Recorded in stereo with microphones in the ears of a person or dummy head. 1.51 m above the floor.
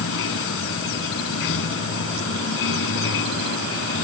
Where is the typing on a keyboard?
I don't hear typing on a keyboard.